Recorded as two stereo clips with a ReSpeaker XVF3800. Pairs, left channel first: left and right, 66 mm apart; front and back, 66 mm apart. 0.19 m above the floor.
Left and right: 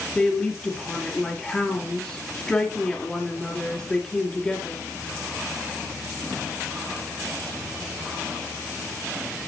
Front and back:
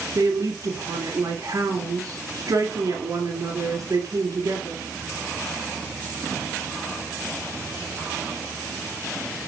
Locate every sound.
0.1 s a woman speaking: 165° left, 1.9 m